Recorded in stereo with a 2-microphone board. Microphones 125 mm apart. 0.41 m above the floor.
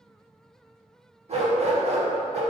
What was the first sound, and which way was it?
A dog barking, 55° right (ahead or behind).